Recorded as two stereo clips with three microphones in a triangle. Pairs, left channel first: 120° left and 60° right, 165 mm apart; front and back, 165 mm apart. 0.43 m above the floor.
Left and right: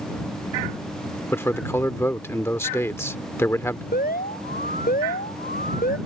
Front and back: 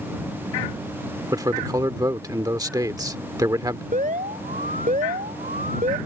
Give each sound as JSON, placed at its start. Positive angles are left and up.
{"t": 1.3, "sound": "a man speaking", "azimuth_deg": 165}
{"t": 3.9, "sound": "an alarm", "azimuth_deg": 145}